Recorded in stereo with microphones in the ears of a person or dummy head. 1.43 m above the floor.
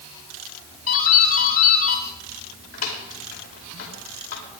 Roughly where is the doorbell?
Left.